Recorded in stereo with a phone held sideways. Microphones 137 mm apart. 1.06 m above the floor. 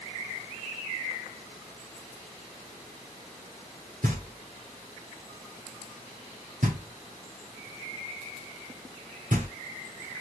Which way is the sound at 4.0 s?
75° right (ahead or behind).